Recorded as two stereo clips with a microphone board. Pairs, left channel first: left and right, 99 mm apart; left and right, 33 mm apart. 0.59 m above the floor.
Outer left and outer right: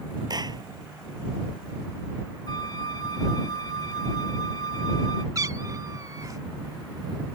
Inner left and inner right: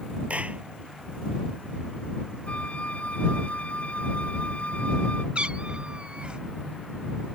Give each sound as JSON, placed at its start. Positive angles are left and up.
{"t": 0.3, "sound": "a clap", "side_deg": -45}
{"t": 2.5, "sound": "a flute", "side_deg": 45}
{"t": 5.3, "sound": "a cat meowing", "side_deg": -40}